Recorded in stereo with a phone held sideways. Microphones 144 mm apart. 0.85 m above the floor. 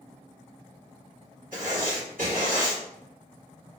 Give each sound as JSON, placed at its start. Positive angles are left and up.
{"t": 1.5, "sound": "writing", "side_deg": -70, "distance_m": 1.5}